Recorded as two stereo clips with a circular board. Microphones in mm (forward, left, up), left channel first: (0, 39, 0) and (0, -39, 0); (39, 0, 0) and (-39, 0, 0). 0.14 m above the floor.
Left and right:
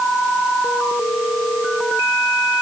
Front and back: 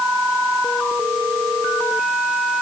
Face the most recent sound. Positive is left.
No sound to turn to.